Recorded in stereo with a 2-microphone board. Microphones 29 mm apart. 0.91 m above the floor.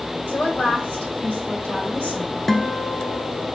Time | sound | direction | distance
0.3 | a woman speaking | 85° left | 3.5 m
2.5 | a guitar | 20° left (ahead or behind) | 0.6 m